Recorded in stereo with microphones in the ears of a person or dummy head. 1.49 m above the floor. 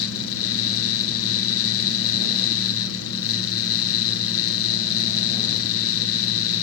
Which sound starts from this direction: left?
A fan, at 0.0 s.